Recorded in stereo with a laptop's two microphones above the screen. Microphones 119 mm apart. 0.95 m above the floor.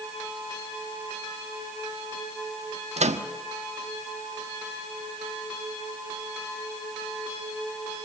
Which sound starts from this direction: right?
A microwave, at 3.0 s.